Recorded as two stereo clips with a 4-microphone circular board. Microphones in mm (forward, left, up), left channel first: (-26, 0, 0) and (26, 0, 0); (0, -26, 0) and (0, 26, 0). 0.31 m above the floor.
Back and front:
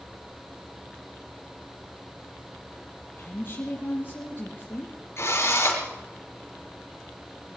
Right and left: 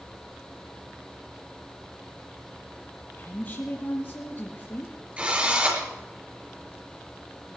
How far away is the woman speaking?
About 5.5 m.